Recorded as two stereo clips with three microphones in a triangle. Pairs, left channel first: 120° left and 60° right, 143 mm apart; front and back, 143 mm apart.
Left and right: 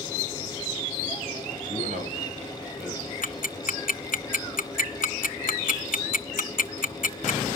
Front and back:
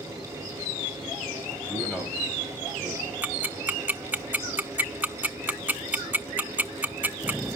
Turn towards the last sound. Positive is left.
turn(degrees=105)